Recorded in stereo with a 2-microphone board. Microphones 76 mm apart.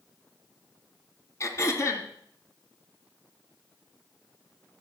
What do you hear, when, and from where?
1.4 s throat clearing: 40° left (ahead or behind), 2.5 m